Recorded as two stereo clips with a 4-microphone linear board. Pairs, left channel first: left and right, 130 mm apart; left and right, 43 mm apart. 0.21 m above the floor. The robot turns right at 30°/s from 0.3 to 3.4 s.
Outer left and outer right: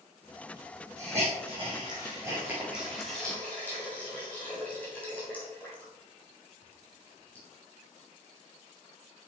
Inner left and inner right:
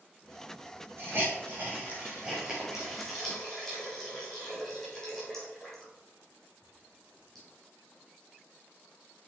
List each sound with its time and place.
1.0 s a hiss: 60° right (ahead or behind), 3 m; by 7.5 s 10° left (ahead or behind), 3 m